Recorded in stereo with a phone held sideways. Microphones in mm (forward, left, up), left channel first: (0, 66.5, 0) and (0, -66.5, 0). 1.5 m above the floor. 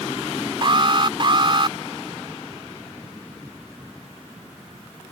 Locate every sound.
0.6 s an alarm: 40° right (ahead or behind)